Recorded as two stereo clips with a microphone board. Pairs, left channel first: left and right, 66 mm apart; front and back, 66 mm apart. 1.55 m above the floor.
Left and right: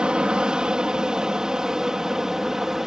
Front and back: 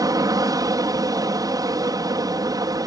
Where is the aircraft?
165° right; by 2.9 s 175° right.